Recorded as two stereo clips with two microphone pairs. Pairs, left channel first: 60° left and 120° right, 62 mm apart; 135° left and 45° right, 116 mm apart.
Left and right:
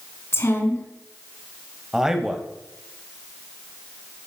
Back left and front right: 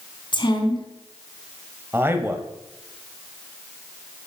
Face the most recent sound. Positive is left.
turn(degrees=-65)